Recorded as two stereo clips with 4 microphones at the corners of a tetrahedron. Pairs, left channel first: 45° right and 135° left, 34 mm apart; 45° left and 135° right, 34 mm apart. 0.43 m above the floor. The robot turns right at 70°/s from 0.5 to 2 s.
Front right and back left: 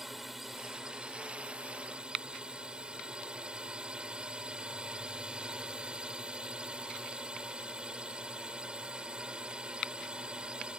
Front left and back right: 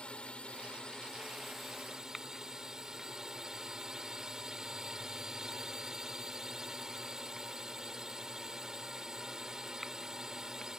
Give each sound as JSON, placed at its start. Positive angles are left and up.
{"t": 0.0, "sound": "a drone", "azimuth_deg": 60}